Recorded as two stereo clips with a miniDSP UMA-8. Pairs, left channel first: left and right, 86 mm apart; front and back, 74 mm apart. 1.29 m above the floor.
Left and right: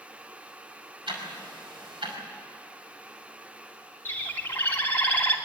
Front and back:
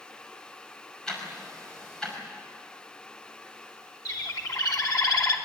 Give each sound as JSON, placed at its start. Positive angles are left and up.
{"t": 1.1, "sound": "ticking", "azimuth_deg": -80, "distance_m": 5.5}
{"t": 4.0, "sound": "a bird", "azimuth_deg": 25, "distance_m": 2.5}